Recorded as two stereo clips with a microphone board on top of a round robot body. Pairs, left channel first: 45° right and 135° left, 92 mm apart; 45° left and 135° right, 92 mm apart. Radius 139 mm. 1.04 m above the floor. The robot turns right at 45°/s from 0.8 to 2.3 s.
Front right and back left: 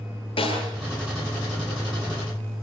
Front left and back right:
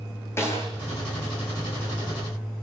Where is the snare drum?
20° right, 9.5 m.